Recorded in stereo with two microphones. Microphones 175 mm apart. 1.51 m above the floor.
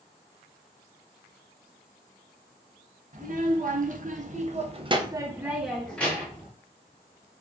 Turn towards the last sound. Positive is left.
turn(degrees=15)  # may be behind; listen again after turning